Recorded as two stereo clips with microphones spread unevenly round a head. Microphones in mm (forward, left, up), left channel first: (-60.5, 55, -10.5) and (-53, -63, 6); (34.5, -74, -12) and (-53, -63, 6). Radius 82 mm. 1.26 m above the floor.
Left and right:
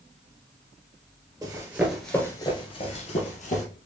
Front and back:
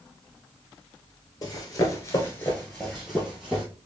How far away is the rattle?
I don't hear a rattle.